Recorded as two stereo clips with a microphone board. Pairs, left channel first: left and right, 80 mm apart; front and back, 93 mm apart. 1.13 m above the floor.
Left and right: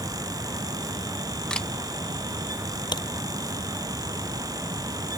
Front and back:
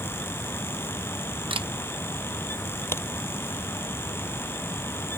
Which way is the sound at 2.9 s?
65° left.